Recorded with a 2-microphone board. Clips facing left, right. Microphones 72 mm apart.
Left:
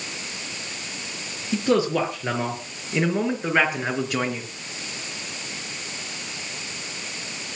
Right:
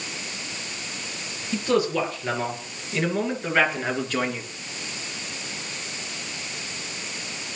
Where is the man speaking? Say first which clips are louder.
Left 2 dB; 25° left (ahead or behind), 5 m; by 4.4 s 5° left (ahead or behind), 3.5 m.